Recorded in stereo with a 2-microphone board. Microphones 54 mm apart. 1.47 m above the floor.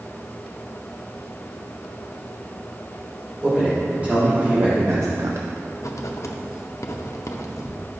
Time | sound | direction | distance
3.4 | a man speaking | 25° right (ahead or behind) | 2.5 m
5.8 | writing | 70° left (ahead or behind) | 0.6 m